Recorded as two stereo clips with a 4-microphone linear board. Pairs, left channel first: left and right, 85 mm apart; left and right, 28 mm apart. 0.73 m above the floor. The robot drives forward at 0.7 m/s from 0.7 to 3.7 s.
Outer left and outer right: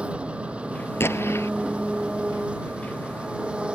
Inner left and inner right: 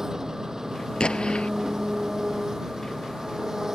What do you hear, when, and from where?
0.0 s an engine running: 15° right (ahead or behind)
1.0 s an explosion: 30° left (ahead or behind)